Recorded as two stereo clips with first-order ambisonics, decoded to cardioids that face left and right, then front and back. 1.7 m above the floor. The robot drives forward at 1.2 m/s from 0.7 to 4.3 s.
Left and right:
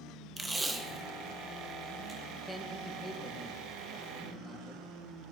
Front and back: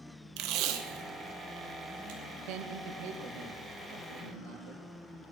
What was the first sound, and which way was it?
Tape being pulled, 165° right.